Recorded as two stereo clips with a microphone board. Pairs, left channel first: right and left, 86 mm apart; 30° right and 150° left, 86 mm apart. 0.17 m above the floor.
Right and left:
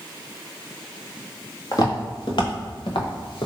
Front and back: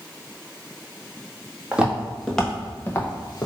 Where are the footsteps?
130° right, 1.4 m; by 3.5 s 75° right, 1.1 m.